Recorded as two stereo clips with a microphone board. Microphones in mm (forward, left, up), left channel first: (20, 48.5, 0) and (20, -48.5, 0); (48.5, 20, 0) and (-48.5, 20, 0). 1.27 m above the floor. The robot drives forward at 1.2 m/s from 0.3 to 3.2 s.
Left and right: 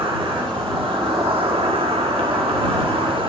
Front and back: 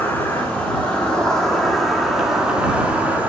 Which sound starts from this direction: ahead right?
An insect, at 0.0 s.